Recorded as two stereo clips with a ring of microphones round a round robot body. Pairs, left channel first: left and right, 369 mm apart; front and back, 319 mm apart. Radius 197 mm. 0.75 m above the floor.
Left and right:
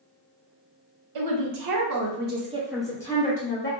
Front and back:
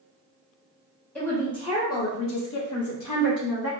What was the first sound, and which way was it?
A woman speaking, 85° right.